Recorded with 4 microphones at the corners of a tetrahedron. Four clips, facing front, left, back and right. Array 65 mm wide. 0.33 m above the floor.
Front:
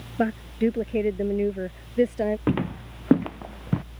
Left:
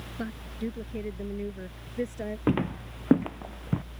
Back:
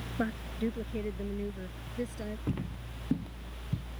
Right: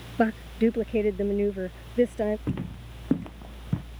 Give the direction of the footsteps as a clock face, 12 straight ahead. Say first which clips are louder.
Left 6 dB, front 11 dB; 11 o'clock.